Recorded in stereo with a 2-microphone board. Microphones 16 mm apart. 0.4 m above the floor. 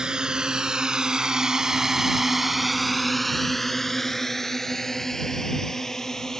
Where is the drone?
75° right (ahead or behind); by 6.4 s 35° left (ahead or behind).